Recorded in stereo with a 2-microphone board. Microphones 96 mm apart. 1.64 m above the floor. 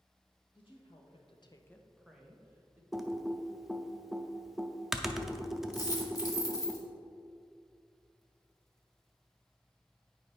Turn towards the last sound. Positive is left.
turn(degrees=40)  # may be behind; listen again after turning